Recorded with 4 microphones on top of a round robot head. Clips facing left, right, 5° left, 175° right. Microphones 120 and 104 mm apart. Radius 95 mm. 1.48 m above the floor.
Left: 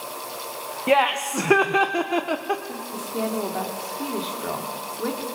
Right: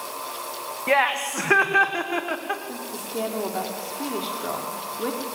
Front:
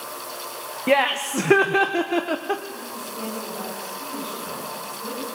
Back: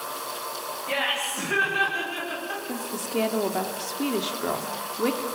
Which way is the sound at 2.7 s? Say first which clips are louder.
Left 1 dB, back 4 dB; straight behind.